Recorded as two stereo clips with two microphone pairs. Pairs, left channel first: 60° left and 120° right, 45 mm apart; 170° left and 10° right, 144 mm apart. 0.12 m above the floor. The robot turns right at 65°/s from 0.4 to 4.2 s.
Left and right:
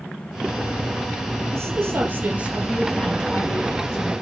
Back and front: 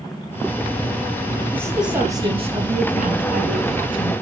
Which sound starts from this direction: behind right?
A woman speaking, at 1.5 s.